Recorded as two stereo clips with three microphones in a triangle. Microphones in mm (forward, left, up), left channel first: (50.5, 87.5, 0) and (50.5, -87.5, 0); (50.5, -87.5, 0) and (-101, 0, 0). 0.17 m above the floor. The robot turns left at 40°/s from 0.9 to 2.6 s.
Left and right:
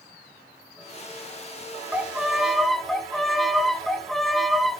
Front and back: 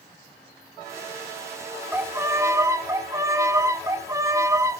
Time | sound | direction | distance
1.9 | a violin | 155° right | 0.9 m